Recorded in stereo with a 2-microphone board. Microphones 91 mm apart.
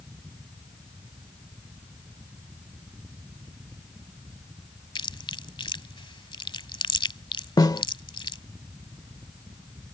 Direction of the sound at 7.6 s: 45° left (ahead or behind).